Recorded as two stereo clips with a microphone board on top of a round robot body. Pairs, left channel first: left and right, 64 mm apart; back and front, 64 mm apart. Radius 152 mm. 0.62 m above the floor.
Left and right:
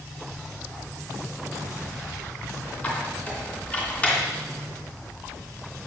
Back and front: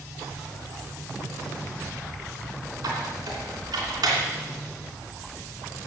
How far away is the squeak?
About 3 m.